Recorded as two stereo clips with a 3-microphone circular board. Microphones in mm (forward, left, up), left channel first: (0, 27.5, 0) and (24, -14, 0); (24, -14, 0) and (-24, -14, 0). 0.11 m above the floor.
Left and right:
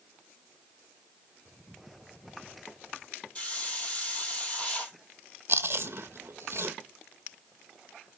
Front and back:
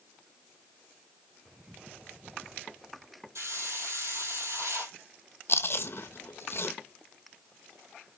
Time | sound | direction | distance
3.4 | a hiss | straight behind | 1.9 m
5.5 | chewing | 30° right | 0.5 m